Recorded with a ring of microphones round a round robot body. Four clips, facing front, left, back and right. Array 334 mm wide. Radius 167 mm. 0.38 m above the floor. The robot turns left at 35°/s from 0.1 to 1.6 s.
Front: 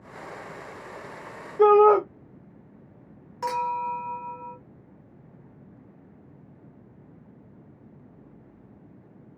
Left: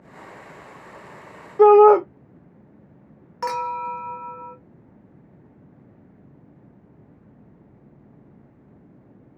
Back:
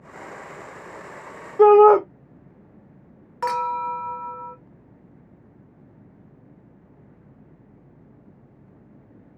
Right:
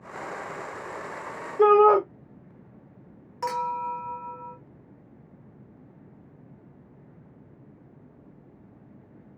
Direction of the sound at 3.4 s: 150° left.